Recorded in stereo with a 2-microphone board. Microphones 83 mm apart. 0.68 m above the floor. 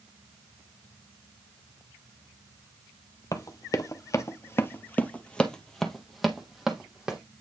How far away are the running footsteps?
About 1.0 m.